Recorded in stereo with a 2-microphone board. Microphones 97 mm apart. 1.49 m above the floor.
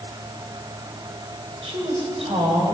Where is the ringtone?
I don't hear a ringtone.